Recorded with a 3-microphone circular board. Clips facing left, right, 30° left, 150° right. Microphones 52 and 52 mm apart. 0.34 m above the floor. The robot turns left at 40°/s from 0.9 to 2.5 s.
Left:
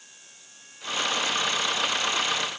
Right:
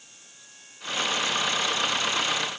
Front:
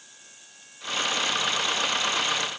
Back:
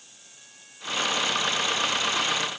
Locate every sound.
Only background noise.